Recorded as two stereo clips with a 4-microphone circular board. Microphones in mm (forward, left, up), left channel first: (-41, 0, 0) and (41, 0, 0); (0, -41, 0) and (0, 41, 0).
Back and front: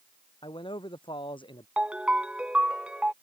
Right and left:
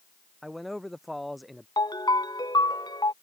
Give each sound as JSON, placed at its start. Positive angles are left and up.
{"t": 0.4, "sound": "a man speaking", "azimuth_deg": 180}
{"t": 1.8, "sound": "a ringtone", "azimuth_deg": -75}